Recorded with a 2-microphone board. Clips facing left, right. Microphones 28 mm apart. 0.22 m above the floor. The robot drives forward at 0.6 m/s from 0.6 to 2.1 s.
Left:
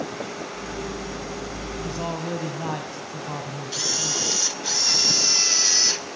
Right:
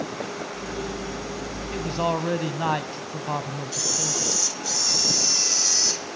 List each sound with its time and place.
1.7 s a man speaking: 35° right (ahead or behind), 1.2 m
3.7 s a camera shutter: 30° left (ahead or behind), 0.7 m